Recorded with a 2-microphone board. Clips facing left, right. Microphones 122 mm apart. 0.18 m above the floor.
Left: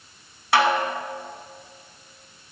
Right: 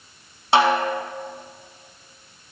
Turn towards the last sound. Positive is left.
turn(degrees=-25)  # may be behind; listen again after turning